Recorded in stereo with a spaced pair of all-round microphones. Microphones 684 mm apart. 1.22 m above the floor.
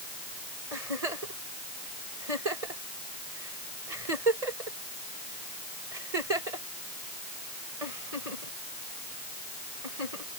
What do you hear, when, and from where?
0.7 s a giggle: 60° right (ahead or behind)